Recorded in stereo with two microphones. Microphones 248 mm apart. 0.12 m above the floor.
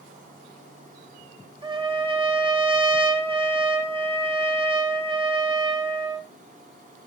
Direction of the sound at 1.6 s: 20° right (ahead or behind).